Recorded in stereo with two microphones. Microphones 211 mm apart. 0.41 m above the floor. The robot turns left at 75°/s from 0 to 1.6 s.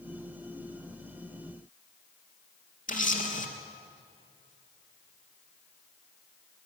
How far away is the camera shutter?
About 3.5 m.